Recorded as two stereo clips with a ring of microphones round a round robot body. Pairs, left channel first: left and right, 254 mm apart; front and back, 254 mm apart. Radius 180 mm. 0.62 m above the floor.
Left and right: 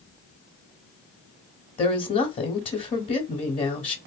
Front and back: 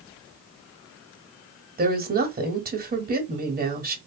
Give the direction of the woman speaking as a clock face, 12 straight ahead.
7 o'clock.